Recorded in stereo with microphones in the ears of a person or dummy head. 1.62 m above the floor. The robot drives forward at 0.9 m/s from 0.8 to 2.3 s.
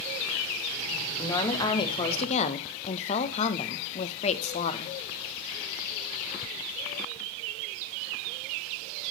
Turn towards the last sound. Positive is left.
turn(degrees=35)  # may be behind; listen again after turning